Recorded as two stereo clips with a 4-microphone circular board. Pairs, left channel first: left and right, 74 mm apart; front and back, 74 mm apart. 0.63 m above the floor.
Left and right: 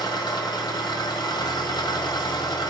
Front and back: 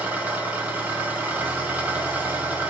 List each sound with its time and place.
0.0 s an engine running: 110° left, 2.0 m